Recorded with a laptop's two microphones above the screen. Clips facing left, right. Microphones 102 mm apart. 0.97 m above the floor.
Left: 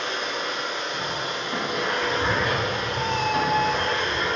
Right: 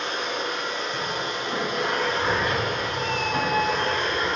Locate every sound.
0.0 s a machine running: 35° right (ahead or behind), 3.5 m
2.0 s a cat meowing: 25° left (ahead or behind), 0.9 m